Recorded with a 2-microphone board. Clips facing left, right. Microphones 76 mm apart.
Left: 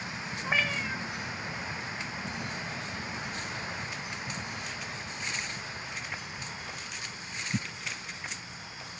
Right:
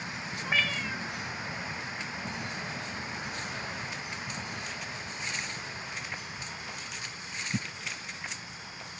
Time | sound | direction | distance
0.4 | a cat meowing | 15° left (ahead or behind) | 1.2 m